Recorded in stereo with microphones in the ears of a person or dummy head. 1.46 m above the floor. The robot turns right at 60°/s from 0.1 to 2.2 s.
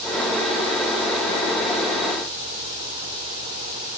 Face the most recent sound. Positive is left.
No sound to turn to.